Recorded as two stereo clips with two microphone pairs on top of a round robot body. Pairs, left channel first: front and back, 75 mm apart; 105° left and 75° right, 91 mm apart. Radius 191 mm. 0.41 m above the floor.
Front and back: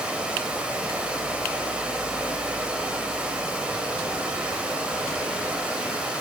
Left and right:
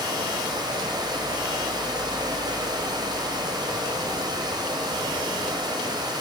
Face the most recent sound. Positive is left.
turn(degrees=-100)